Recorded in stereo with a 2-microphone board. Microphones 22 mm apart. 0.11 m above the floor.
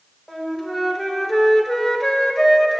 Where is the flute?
15° left (ahead or behind), 0.6 m.